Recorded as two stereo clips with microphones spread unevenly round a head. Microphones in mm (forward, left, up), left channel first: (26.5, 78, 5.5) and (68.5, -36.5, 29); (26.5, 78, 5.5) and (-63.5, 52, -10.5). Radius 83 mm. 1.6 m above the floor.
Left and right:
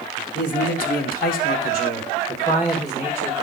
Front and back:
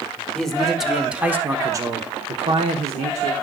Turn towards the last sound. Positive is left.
turn(degrees=-165)